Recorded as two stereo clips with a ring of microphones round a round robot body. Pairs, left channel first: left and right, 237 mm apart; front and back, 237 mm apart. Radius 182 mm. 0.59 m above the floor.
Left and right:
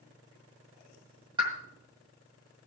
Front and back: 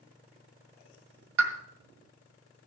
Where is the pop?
165° right, 1.9 m.